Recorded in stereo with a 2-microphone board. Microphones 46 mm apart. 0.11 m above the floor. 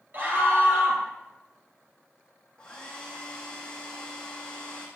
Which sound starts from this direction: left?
A hair dryer, at 2.6 s.